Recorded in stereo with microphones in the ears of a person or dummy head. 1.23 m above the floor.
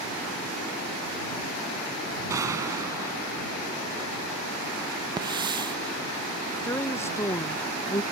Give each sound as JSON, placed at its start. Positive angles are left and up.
{"t": 2.3, "sound": "a gunshot", "side_deg": -20}
{"t": 5.2, "sound": "a hiss", "side_deg": -25}
{"t": 6.6, "sound": "a woman speaking", "side_deg": 15}